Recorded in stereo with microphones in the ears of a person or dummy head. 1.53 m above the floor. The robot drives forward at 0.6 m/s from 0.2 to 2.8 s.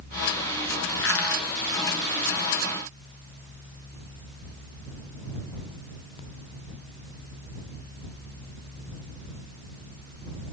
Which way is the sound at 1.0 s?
80° left.